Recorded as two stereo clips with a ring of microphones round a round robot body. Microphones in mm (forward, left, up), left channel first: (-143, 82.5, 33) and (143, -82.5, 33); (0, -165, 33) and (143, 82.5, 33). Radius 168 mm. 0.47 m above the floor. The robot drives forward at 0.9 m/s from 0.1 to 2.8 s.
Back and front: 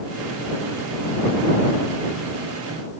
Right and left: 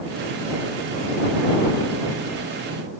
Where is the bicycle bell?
No bicycle bell in this recording.